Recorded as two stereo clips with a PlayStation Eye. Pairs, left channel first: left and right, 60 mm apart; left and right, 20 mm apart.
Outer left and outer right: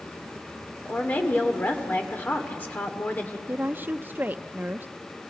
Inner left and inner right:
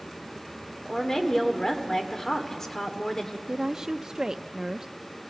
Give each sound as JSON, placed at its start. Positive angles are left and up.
{"t": 0.8, "sound": "a woman speaking", "side_deg": 30, "distance_m": 2.0}
{"t": 3.5, "sound": "a woman speaking", "side_deg": -35, "distance_m": 0.5}